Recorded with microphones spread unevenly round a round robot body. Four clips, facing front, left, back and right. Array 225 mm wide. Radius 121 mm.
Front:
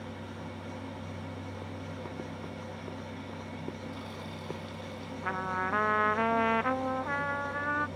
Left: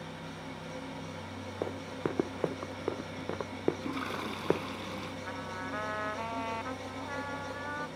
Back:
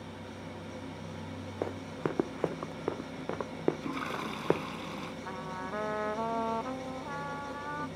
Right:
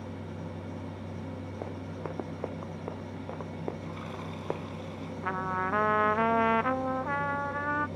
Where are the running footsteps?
150° left; by 4.6 s 155° left.